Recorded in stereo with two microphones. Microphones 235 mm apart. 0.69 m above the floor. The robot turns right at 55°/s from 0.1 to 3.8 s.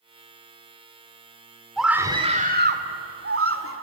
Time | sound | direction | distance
1.8 | a scream | straight behind | 1.9 m